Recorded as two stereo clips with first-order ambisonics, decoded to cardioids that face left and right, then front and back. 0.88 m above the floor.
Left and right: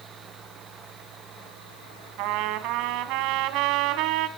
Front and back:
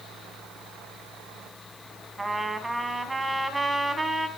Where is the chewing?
I don't hear chewing.